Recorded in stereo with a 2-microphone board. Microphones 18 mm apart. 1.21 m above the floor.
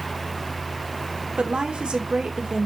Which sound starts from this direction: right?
A woman speaking, at 1.4 s.